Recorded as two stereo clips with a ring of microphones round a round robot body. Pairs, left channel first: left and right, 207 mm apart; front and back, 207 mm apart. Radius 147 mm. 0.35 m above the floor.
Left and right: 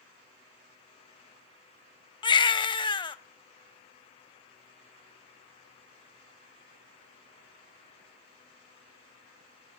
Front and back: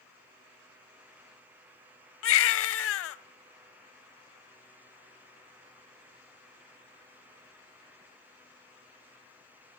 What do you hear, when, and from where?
2.2 s a baby crying: 20° left, 0.5 m